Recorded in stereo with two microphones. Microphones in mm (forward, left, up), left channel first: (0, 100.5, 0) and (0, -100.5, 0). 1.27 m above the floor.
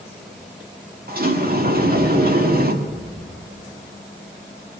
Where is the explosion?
45° right (ahead or behind), 7.5 m.